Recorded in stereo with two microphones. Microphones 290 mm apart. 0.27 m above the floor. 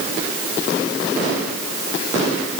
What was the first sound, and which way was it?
Only background noise.